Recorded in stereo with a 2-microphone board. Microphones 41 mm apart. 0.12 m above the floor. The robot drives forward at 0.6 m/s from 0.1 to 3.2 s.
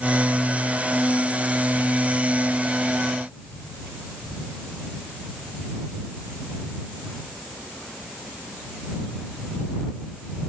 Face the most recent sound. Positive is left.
No sound to turn to.